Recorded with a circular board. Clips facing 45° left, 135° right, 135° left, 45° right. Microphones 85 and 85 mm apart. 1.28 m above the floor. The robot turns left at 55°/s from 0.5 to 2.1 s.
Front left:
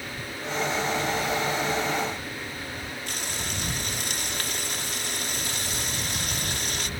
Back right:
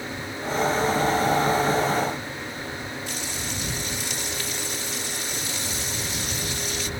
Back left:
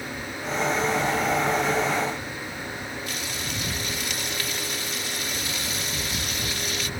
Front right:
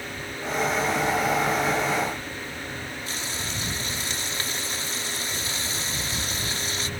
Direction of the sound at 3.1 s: 15° left.